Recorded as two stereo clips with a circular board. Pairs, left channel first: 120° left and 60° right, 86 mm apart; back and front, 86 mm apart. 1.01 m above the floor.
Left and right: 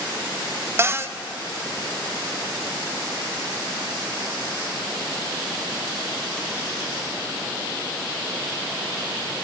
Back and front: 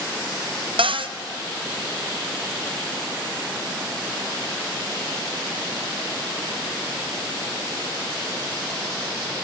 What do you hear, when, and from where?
0.8 s a cupboard door: straight ahead, 0.6 m